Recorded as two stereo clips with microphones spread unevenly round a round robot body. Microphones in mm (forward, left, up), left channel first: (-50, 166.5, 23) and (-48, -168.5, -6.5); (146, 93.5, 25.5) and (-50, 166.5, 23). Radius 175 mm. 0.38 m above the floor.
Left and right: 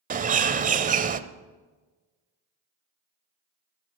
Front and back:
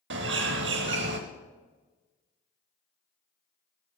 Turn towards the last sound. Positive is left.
turn(degrees=-155)